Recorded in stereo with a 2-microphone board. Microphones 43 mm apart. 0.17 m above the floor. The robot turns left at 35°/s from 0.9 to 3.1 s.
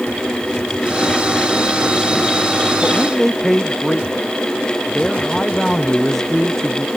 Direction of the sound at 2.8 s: 5° right (ahead or behind).